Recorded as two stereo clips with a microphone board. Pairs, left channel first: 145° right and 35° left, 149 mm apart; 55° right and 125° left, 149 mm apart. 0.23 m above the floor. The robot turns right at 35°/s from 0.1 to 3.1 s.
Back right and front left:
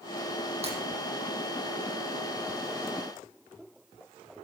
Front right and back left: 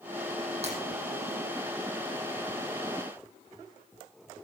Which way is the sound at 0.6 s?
80° left.